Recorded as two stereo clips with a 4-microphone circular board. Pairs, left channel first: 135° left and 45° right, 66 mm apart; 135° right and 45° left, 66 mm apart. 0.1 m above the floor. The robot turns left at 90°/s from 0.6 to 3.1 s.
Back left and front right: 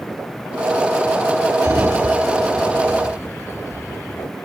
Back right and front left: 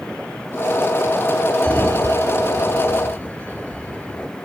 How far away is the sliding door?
About 1.0 m.